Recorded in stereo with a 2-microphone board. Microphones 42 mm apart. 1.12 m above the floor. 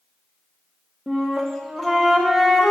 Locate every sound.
1.1 s a flute: 5° left (ahead or behind), 1.1 m